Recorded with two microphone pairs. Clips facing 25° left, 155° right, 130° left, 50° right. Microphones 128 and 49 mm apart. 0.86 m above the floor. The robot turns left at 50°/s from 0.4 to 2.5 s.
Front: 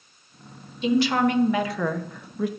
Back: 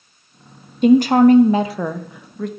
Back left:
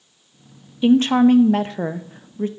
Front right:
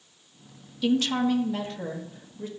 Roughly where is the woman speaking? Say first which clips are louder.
Back 10 dB, back left 10 dB; behind.